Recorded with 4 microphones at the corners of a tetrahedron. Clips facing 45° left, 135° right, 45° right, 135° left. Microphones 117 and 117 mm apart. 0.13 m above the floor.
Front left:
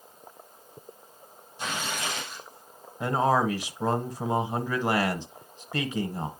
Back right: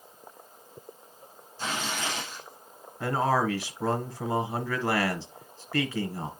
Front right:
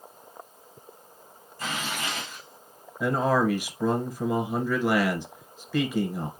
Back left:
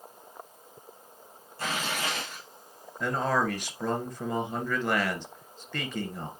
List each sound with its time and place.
1.6 s tearing paper: 120° left, 6 m
3.0 s a man speaking: 20° left, 1.2 m